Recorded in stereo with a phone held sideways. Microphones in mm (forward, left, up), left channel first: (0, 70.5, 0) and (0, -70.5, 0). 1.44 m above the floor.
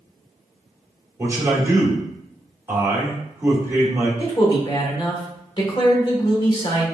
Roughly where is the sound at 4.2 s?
Left.